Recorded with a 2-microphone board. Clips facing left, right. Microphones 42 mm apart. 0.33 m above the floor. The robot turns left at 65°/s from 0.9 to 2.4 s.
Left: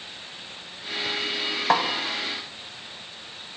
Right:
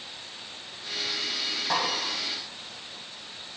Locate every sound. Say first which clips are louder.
1.7 s a snare drum: left 7 dB; 55° left (ahead or behind), 0.7 m; by 1.8 s 65° left (ahead or behind), 0.7 m